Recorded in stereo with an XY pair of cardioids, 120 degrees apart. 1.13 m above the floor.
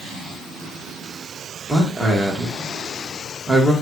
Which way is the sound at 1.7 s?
5° right.